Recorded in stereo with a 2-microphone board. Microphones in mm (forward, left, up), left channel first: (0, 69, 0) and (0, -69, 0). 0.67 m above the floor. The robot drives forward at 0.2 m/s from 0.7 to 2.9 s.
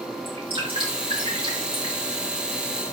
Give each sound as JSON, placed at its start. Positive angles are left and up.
{"t": 0.2, "sound": "dripping", "side_deg": -40, "distance_m": 5.5}